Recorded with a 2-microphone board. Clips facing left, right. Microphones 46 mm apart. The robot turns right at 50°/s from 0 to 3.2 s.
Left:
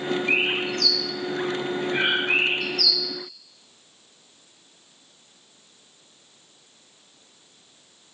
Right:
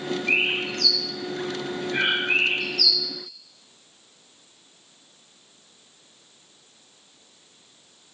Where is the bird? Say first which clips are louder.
Right 1 dB; 40° right (ahead or behind), 1.7 m; by 3.0 s 35° left (ahead or behind), 1.7 m.